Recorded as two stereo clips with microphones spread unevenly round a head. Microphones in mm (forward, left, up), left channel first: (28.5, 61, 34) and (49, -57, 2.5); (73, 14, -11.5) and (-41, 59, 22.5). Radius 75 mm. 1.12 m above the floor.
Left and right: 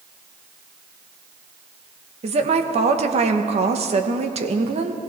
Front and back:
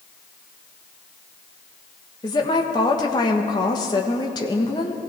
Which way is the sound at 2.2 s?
75° right.